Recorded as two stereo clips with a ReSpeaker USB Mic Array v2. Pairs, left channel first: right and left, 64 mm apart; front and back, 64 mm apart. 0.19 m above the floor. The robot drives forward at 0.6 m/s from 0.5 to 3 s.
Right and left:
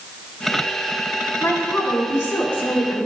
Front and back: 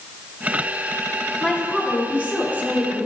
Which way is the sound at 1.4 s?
100° right.